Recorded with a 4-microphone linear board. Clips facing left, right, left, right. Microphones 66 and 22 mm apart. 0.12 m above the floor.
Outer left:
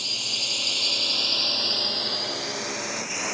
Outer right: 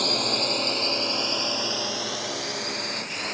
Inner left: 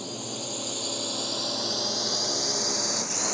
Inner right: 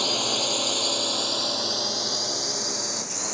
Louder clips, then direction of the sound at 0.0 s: Outer right 9 dB, inner right 11 dB; 50° right (ahead or behind).